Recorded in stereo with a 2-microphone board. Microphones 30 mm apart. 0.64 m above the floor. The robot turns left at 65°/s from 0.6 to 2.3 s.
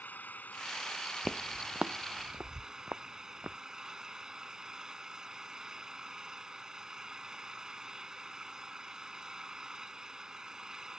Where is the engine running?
85° left; by 11.0 s 25° right.